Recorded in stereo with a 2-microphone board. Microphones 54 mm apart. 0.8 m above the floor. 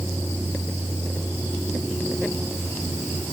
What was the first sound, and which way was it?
Only background noise.